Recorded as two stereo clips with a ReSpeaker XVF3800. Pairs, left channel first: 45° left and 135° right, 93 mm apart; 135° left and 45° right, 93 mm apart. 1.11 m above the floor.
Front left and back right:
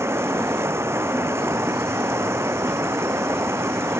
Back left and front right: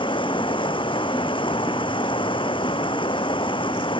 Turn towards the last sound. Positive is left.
turn(degrees=160)